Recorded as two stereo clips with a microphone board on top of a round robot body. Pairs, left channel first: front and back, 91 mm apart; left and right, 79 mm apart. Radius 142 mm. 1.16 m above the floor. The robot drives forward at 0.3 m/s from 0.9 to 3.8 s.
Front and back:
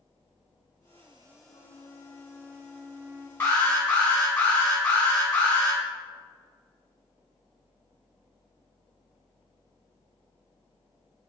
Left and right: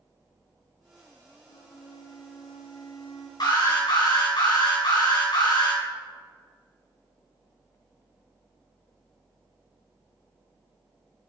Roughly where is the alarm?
Left.